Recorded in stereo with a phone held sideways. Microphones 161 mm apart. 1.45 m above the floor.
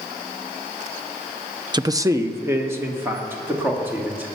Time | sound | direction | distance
1.7 | a man speaking | 25° right (ahead or behind) | 0.5 m